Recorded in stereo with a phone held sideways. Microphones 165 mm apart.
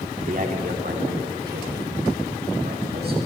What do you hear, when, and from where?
0.2 s a man speaking: 55° right (ahead or behind), 3 m; by 3.2 s 75° right (ahead or behind), 6 m